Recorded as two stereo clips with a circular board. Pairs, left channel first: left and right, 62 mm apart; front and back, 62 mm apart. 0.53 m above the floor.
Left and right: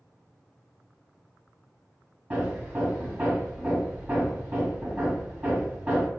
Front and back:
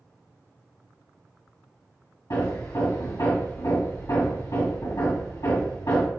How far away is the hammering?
About 1.6 m.